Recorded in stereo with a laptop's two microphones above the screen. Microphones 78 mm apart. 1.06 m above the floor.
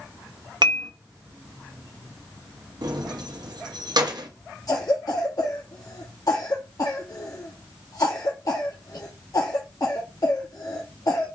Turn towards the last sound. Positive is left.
turn(degrees=50)  # may be behind; listen again after turning